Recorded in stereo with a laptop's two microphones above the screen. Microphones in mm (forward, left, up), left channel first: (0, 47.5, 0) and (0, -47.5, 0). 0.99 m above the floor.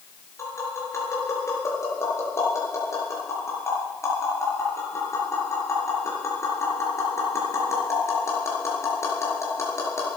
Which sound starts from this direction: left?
Tapping, at 0.4 s.